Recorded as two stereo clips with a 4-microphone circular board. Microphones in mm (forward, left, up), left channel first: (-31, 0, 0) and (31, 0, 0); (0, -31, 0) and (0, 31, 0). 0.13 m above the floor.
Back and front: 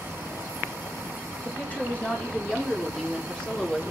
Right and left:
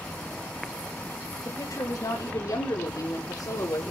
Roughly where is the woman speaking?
Behind right.